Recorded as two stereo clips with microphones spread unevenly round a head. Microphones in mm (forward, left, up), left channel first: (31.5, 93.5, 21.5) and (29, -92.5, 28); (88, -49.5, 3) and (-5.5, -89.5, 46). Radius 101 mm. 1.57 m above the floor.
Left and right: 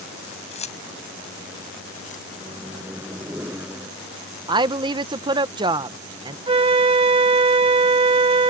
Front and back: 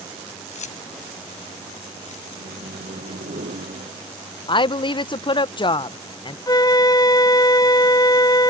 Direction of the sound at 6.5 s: 30° right.